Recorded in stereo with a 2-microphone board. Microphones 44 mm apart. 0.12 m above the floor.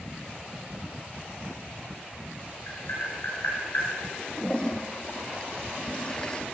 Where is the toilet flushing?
20° left (ahead or behind), 1.6 m.